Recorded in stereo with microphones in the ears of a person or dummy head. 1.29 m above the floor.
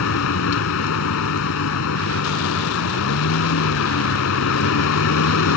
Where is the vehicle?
75° left (ahead or behind).